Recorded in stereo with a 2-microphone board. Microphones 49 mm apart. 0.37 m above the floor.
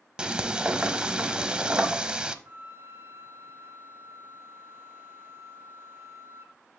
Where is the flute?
50° right (ahead or behind), 1.0 m.